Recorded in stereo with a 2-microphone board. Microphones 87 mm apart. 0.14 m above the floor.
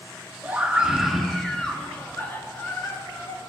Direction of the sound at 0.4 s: 20° right (ahead or behind).